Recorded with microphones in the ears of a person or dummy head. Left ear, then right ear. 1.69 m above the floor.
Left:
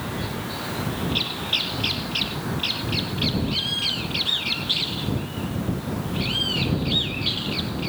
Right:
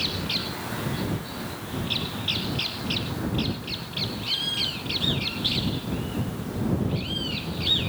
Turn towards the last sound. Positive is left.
No sound to turn to.